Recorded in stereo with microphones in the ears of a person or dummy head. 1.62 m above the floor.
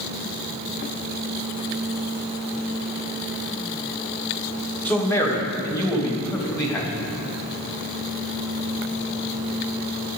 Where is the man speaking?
10° left (ahead or behind), 2 m; by 6.9 s 15° left (ahead or behind), 3.5 m.